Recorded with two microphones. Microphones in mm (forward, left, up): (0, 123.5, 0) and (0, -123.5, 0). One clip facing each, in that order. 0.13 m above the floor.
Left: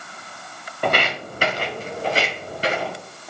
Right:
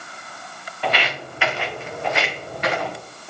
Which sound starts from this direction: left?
Footsteps, at 0.8 s.